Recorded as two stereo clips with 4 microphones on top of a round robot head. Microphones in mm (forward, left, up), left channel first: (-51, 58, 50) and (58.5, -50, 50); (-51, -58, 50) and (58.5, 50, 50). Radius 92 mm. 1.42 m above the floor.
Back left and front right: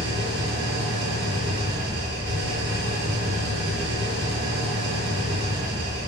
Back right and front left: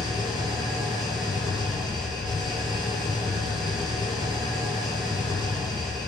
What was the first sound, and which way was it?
An engine running, 20° right.